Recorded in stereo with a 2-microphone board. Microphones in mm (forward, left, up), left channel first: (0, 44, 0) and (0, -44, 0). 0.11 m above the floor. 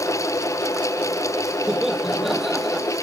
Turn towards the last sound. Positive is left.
turn(degrees=0)  # may be behind; listen again after turning